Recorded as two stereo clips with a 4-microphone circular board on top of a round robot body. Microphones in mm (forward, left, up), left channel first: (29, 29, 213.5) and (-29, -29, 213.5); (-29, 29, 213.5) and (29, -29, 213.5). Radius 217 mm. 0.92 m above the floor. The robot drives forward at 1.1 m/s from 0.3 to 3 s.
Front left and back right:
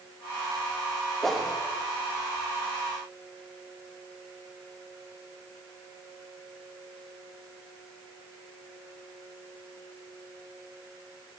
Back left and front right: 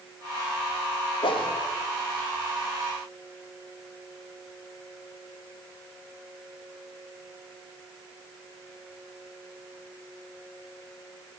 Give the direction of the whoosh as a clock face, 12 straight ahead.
8 o'clock.